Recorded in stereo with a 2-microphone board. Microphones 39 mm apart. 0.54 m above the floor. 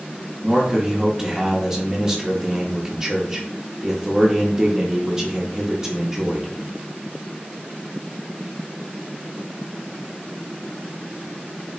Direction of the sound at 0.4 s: 15° right (ahead or behind).